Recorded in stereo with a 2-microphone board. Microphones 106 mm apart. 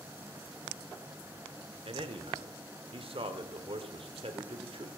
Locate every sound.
1.9 s a man speaking: 60° right (ahead or behind), 1.3 m